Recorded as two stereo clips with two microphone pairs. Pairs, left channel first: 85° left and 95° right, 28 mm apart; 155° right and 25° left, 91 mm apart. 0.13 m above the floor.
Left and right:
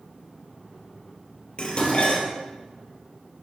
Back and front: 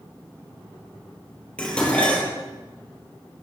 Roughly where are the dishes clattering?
Behind left.